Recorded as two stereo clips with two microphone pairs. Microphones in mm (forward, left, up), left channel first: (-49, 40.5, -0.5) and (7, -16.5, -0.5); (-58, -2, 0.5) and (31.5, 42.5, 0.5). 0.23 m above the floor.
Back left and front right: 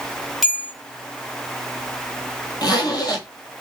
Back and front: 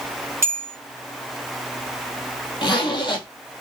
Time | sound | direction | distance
0.4 | a bell | 45° left | 1.2 m
2.6 | a zipper | 165° left | 1.2 m